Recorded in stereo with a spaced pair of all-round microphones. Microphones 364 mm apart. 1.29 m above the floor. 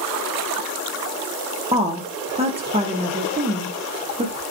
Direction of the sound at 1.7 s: 15° right (ahead or behind).